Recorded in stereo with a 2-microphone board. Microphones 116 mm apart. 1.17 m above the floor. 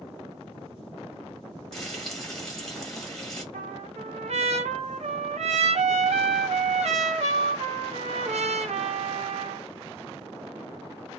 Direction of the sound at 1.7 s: 5° left (ahead or behind).